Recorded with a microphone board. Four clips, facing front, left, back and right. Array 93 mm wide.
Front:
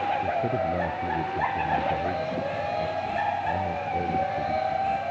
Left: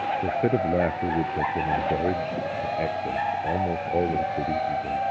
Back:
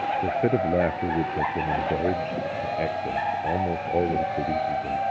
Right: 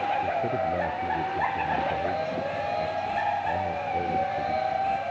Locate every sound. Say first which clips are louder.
0.2 s a man speaking: left 3 dB, back 3 dB; 140° left